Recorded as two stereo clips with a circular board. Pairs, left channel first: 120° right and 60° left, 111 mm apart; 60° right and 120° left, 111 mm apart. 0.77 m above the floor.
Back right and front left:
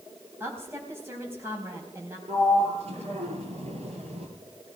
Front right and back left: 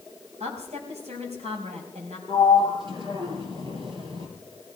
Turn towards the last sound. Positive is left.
turn(degrees=75)